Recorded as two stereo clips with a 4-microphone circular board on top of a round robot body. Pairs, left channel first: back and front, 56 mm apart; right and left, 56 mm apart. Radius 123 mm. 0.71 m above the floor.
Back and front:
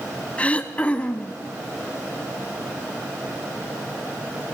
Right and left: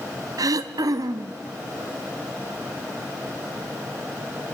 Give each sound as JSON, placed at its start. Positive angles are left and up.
{"t": 0.4, "sound": "throat clearing", "azimuth_deg": 110, "distance_m": 0.6}